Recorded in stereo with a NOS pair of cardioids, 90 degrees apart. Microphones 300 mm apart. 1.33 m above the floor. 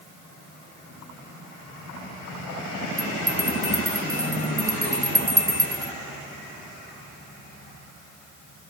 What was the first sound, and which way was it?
A bell, 10° right.